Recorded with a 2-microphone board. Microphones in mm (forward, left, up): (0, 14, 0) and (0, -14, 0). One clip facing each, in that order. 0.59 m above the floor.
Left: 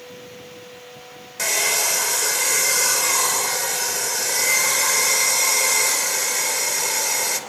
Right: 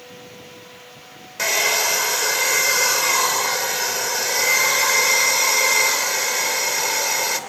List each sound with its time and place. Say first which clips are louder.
1.4 s a hair dryer: right 2 dB; 15° right (ahead or behind), 2.5 m